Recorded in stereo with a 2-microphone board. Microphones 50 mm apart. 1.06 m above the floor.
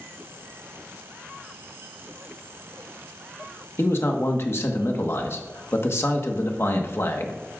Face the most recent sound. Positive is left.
turn(degrees=60)  # may be behind; listen again after turning